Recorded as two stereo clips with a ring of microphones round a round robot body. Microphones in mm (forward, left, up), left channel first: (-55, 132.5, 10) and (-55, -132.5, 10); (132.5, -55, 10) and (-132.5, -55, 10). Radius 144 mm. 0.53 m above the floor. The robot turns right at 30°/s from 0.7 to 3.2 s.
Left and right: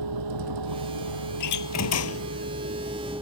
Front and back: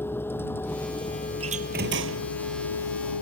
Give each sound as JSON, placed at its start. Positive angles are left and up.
{"t": 0.0, "sound": "a vehicle", "azimuth_deg": -85}
{"t": 1.4, "sound": "a door slam", "azimuth_deg": 105}